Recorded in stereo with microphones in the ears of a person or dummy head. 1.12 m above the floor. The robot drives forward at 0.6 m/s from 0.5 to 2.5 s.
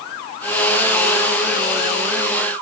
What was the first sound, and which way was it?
Only background noise.